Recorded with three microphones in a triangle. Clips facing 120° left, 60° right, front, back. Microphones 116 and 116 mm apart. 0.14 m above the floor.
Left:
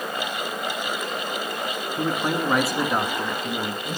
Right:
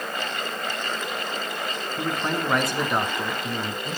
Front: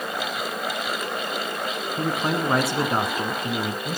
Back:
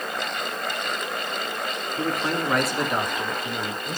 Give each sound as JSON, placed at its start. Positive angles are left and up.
{"t": 2.0, "sound": "a man speaking", "azimuth_deg": 65, "distance_m": 1.2}